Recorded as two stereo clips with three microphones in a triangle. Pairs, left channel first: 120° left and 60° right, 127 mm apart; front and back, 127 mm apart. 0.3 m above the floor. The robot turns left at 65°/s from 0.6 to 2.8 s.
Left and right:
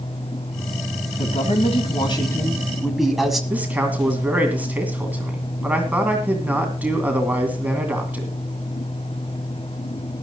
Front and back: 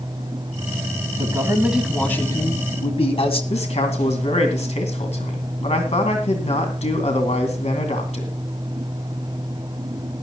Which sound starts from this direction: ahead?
A man speaking, at 3.5 s.